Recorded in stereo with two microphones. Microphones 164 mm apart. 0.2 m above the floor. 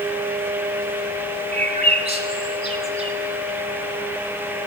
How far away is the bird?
About 1.2 m.